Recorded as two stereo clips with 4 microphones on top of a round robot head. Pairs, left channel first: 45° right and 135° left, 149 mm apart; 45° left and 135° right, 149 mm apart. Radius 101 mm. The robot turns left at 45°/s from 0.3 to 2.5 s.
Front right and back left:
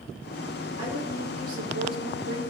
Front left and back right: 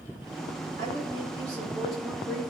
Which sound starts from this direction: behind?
A woman speaking, at 0.8 s.